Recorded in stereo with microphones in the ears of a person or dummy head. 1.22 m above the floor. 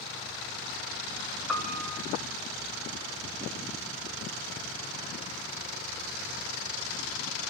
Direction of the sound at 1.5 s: 5° right (ahead or behind).